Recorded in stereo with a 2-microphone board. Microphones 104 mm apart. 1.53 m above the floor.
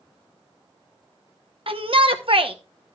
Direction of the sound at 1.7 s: 55° right (ahead or behind).